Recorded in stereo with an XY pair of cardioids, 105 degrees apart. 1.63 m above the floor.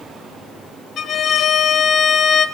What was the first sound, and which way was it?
A violin, 60° left.